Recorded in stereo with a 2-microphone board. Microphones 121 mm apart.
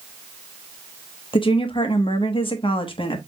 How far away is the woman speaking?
About 1.0 m.